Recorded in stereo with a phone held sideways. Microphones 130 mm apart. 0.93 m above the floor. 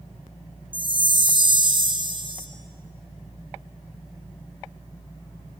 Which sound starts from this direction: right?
A chime, at 0.7 s.